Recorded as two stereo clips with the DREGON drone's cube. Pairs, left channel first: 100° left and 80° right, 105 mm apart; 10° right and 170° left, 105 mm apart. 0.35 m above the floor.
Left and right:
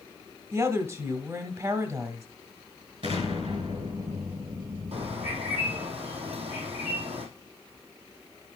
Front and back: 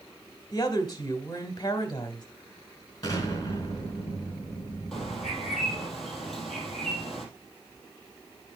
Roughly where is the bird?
Right.